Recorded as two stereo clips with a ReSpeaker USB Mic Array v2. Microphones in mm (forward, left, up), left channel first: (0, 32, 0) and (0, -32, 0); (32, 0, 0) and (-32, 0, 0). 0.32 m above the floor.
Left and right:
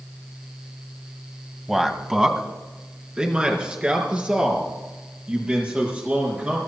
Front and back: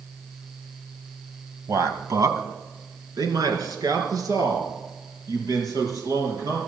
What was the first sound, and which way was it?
A man speaking, 175° right.